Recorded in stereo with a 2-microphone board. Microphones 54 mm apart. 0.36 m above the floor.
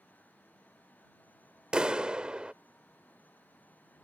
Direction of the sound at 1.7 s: 20° right (ahead or behind).